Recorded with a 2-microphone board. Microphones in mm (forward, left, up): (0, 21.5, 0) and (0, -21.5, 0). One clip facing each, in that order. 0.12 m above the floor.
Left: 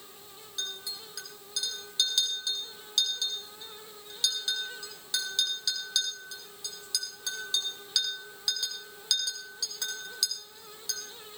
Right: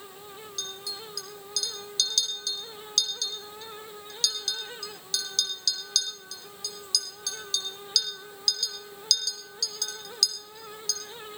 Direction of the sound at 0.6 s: 25° left (ahead or behind).